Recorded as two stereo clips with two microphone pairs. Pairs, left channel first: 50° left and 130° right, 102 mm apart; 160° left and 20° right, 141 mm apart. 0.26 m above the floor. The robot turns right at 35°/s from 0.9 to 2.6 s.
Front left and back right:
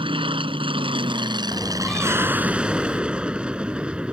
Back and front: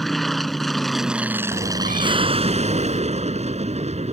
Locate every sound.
0.0 s an aircraft: 110° right; by 4.1 s 50° right
1.5 s a cat meowing: 50° right; by 3.0 s 10° right